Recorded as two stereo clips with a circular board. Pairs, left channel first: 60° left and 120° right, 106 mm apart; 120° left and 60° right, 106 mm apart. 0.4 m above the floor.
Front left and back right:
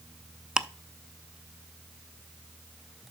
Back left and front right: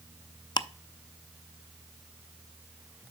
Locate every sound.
0.6 s ticking: 160° left, 0.5 m